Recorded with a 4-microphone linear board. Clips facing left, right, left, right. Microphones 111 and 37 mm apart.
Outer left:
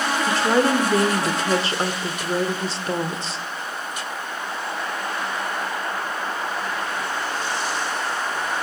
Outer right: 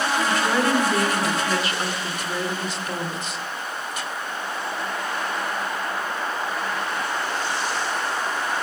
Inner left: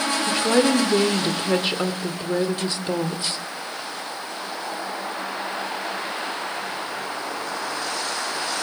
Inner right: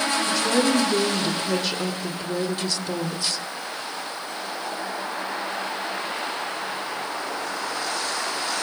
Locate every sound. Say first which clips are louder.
0.3 s a woman speaking: outer left 5 dB, inner left 4 dB; 30° left (ahead or behind), 1.6 m